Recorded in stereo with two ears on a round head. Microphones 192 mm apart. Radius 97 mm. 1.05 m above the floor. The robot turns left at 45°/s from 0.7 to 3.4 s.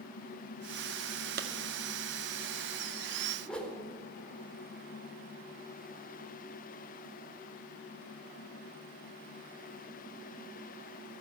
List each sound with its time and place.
1.4 s a clap: 45° right (ahead or behind), 1.9 m; by 1.5 s 50° right (ahead or behind), 1.9 m
3.5 s a whoosh: 5° left (ahead or behind), 4 m